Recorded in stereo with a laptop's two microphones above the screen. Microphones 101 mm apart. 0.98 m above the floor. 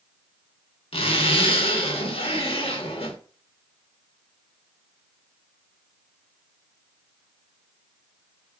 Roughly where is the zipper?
Left.